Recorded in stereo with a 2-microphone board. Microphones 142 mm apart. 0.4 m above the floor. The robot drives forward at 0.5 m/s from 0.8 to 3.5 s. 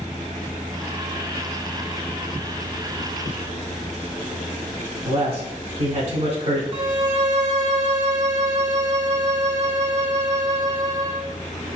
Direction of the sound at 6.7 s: 50° right (ahead or behind).